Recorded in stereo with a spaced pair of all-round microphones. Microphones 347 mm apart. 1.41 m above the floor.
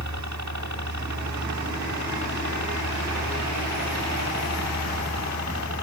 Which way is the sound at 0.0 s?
55° right (ahead or behind).